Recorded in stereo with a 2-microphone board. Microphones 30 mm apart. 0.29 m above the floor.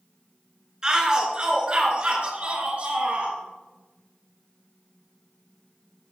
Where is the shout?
25° right (ahead or behind), 4.5 m; by 3.4 s 50° right (ahead or behind), 6.5 m.